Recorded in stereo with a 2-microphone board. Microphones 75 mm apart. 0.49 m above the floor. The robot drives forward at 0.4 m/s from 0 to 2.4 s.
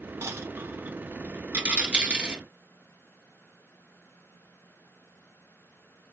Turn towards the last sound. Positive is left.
turn(degrees=-15)  # may be behind; listen again after turning